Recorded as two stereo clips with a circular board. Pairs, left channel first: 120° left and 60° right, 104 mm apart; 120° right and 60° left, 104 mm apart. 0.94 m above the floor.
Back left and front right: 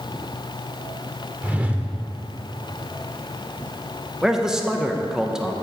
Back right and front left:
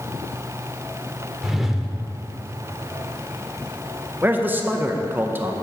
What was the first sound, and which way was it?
A whoosh, 20° right.